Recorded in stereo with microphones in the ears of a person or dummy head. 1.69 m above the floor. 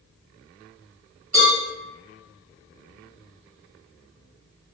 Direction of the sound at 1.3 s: 5° right (ahead or behind).